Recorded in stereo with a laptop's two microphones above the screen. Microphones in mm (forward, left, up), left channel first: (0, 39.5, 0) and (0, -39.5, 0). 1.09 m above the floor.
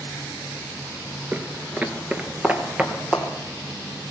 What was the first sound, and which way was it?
Footsteps, 20° right (ahead or behind).